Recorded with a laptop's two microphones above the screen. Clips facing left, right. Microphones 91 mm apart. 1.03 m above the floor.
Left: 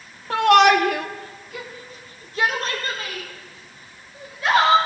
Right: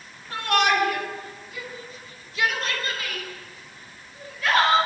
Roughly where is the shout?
Left.